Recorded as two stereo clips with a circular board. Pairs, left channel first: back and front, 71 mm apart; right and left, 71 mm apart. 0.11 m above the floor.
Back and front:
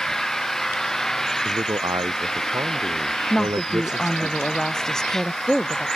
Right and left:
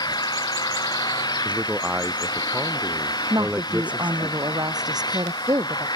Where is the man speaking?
20° left.